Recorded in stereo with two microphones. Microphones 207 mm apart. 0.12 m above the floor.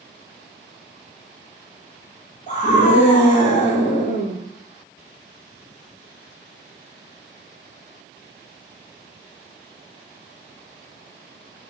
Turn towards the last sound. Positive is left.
turn(degrees=35)  # may be behind; listen again after turning